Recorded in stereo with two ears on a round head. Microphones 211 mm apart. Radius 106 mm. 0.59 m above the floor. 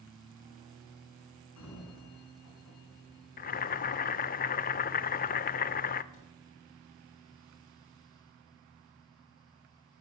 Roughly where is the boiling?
Left.